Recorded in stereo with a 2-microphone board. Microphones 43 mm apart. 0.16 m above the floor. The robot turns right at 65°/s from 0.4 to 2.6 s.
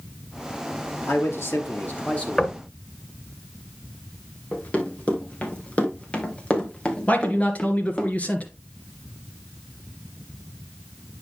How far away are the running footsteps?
About 4 m.